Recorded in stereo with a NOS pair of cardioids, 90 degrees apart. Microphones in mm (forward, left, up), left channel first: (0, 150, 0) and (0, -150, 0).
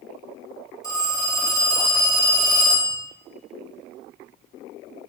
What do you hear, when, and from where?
0.8 s a phone ringing: 10° left, 2.5 m